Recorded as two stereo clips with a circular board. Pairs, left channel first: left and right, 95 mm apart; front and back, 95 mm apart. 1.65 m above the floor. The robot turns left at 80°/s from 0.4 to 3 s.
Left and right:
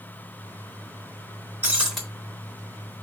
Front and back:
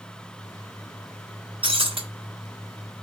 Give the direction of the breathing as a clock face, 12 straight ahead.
No breathing in this recording.